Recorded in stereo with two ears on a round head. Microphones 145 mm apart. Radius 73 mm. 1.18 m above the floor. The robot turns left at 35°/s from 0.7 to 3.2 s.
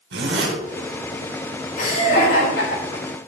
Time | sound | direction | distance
0.1 | a zipper | 75° right (ahead or behind) | 3 m
1.8 | laughter | 125° left | 5 m